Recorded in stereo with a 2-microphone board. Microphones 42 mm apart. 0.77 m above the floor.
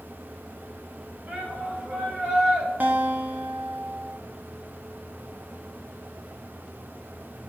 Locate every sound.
1.3 s a shout: 40° right (ahead or behind), 4 m; by 2.7 s 15° right (ahead or behind), 4 m
2.8 s a guitar: 40° right (ahead or behind), 0.9 m